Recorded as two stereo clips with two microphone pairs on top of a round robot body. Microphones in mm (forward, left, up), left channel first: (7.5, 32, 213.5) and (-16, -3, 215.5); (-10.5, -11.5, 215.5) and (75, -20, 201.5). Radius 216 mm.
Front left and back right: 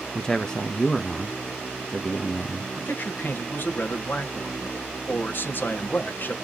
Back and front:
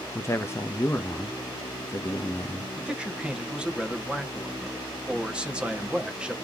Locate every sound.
0.1 s a man speaking: 120° left, 1.0 m
2.8 s a man speaking: 60° left, 1.8 m